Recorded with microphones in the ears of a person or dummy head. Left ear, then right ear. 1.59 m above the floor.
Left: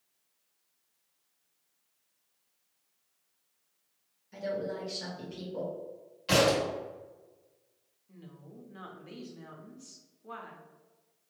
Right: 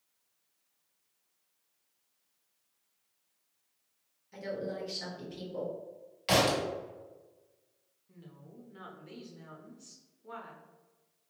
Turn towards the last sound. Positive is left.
turn(degrees=5)  # may be behind; listen again after turning